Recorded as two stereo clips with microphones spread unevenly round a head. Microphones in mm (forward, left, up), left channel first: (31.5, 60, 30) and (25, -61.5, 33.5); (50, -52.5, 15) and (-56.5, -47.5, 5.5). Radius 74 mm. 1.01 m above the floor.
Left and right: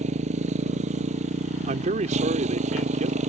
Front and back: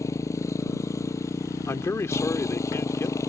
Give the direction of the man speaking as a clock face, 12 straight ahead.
2 o'clock.